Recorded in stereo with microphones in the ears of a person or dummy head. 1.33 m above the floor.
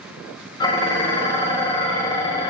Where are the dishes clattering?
25° left (ahead or behind), 0.6 m.